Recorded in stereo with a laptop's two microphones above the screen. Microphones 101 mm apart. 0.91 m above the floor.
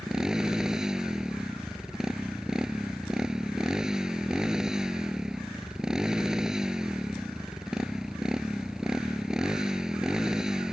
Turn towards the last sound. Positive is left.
turn(degrees=-5)  # may be behind; listen again after turning